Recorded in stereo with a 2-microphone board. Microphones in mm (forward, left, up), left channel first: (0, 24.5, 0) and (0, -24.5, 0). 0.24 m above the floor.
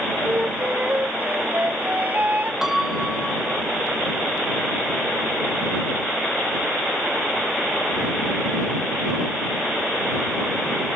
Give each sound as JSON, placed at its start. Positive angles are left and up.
{"t": 0.2, "sound": "a flute", "side_deg": -35}
{"t": 2.6, "sound": "a piano", "side_deg": -5}